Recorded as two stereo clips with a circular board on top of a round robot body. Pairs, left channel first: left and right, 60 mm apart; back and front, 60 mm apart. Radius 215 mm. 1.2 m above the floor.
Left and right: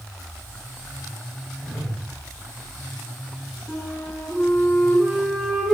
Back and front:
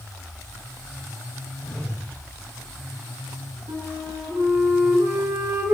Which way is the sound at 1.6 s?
130° left.